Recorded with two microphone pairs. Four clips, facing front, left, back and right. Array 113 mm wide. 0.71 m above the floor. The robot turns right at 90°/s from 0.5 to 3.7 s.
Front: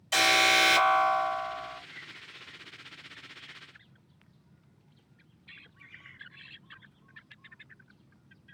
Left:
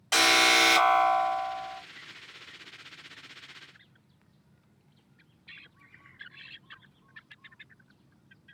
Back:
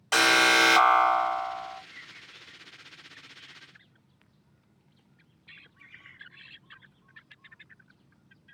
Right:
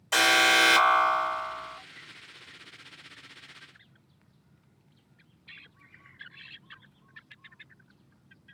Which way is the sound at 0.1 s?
160° left.